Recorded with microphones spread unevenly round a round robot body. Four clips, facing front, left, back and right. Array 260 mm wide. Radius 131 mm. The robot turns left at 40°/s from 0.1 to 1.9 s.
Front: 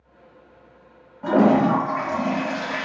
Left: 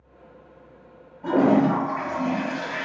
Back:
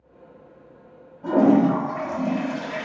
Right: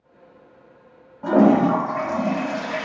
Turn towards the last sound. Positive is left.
turn(degrees=-75)